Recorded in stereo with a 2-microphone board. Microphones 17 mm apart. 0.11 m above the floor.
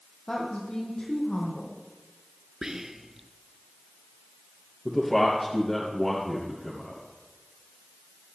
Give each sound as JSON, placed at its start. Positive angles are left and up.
{"t": 0.3, "sound": "a woman speaking", "side_deg": 50, "distance_m": 4.0}
{"t": 2.6, "sound": "whispering", "side_deg": -30, "distance_m": 1.1}
{"t": 4.8, "sound": "a man speaking", "side_deg": 25, "distance_m": 3.0}